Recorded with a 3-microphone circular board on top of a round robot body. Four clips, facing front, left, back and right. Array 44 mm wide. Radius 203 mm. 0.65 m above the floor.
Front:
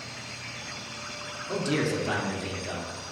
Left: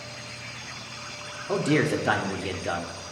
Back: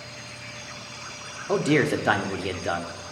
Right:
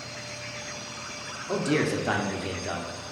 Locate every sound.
1.5 s a man speaking: 165° left, 1.8 m